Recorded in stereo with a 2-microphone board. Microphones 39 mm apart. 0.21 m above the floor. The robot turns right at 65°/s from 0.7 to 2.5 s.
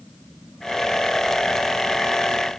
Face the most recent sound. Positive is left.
No sound to turn to.